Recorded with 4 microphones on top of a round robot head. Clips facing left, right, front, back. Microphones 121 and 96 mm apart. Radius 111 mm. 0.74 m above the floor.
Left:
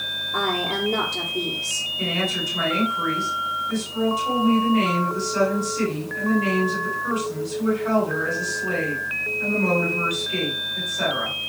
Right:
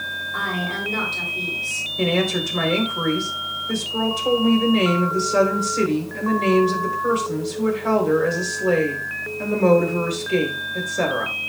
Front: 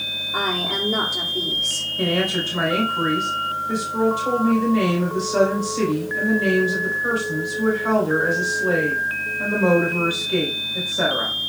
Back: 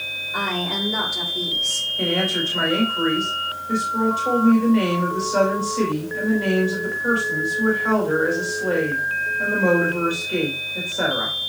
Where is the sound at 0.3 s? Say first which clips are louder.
Left 3 dB, front 1 dB; 55° left, 2.5 m.